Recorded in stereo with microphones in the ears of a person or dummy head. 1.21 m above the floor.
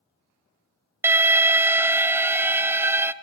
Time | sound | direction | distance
1.0 | an alarm | 15° right (ahead or behind) | 0.6 m